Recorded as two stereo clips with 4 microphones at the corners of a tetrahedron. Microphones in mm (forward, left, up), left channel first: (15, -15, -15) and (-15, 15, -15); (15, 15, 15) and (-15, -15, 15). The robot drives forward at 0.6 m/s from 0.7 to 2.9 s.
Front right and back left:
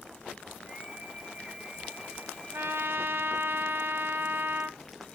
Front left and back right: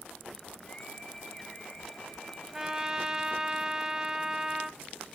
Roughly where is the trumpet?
Behind left.